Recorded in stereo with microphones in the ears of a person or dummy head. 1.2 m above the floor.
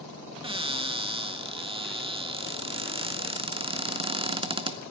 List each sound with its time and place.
0.4 s a cupboard door: 25° right (ahead or behind), 0.6 m